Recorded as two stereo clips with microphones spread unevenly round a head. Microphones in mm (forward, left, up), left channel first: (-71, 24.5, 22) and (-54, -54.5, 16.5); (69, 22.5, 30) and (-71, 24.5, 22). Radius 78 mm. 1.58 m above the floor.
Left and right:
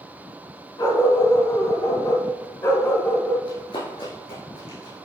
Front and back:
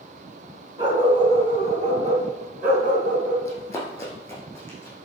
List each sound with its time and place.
0.8 s a dog barking: 120° left, 3 m; by 3.4 s 165° left, 3 m
3.5 s running footsteps: 70° left, 4 m; by 5.1 s 75° left, 6 m